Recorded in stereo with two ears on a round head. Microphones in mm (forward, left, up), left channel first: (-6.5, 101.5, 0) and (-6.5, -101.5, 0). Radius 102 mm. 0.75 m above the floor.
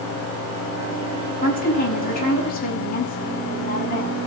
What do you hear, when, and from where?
1.4 s a woman speaking: 40° left (ahead or behind), 6.5 m